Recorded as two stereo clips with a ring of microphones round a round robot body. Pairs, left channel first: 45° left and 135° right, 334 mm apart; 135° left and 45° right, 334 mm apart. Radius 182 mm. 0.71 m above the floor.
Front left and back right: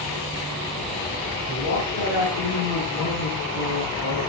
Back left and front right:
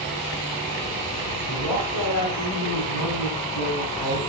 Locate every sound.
1.5 s a man speaking: 100° left, 8 m; by 4.2 s 95° left, 3.5 m